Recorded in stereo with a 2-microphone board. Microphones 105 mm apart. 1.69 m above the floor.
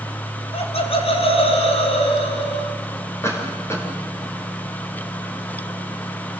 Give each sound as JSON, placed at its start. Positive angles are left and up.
{"t": 0.5, "sound": "laughter", "side_deg": 75, "distance_m": 4.0}
{"t": 3.2, "sound": "a cough", "side_deg": 25, "distance_m": 6.0}